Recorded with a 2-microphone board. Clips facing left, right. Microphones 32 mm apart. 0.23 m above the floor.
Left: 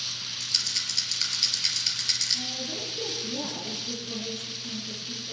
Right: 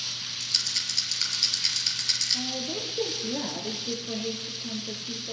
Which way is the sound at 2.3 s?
40° right (ahead or behind).